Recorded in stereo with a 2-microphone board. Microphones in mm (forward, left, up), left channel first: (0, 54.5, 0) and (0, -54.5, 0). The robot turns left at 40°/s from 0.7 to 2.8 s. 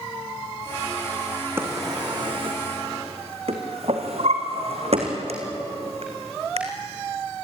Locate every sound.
1.6 s a drawer: 20° right (ahead or behind), 3.5 m; by 6.6 s 70° right (ahead or behind), 3.5 m